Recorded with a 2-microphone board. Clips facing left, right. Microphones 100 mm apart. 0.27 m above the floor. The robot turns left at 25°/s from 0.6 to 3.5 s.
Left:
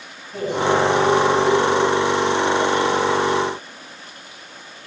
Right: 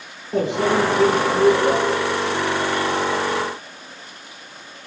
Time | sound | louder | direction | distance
0.3 | a microwave | even | 75° right (ahead or behind) | 4.5 m